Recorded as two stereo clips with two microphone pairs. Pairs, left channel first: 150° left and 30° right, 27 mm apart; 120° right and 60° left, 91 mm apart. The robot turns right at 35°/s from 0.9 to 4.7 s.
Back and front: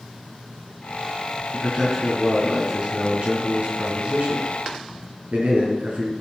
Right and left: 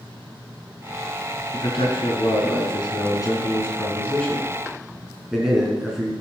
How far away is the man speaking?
About 3.5 m.